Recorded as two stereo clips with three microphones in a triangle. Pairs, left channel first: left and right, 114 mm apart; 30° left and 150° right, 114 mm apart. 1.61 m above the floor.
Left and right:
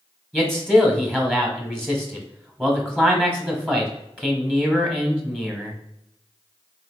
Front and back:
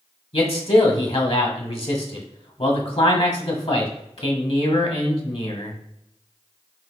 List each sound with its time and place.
0.3 s a man speaking: 5° left, 1.0 m